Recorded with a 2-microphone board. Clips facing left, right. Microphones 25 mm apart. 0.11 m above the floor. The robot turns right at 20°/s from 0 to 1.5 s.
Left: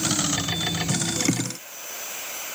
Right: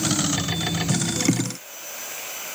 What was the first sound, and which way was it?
Only background noise.